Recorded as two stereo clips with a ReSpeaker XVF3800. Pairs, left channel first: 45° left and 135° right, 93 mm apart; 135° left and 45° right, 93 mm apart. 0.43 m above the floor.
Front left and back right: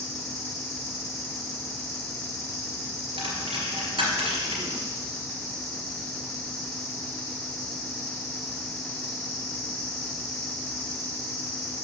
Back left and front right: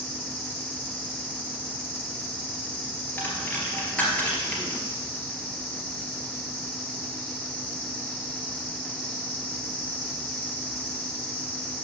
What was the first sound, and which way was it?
An insect, 100° right.